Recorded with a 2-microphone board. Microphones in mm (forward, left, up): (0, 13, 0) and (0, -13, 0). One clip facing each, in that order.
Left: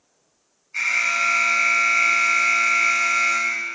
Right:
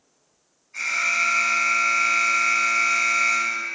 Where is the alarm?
30° left (ahead or behind), 1.7 m.